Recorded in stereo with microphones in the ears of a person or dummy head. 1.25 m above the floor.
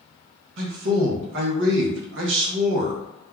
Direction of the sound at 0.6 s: 65° right (ahead or behind).